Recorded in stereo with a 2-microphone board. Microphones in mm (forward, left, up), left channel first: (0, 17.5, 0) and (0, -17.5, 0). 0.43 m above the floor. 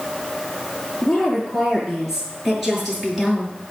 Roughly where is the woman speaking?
Centre.